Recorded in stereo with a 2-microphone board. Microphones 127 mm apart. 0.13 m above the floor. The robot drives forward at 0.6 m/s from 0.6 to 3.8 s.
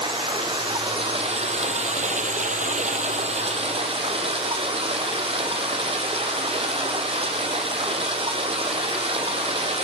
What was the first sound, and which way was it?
Running water, 40° right (ahead or behind).